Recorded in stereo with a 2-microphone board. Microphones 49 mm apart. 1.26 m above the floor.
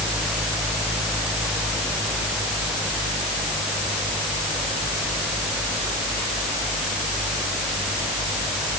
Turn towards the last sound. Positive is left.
No sound to turn to.